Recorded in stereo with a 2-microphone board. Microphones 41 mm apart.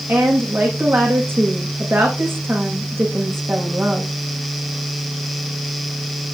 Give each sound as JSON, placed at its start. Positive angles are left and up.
{"t": 0.1, "sound": "a woman speaking", "side_deg": -70, "distance_m": 7.0}